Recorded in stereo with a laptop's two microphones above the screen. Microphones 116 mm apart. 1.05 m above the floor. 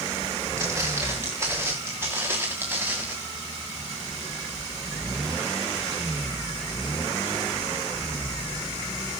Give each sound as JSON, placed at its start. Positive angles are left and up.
{"t": 0.6, "sound": "footsteps", "side_deg": -25, "distance_m": 7.5}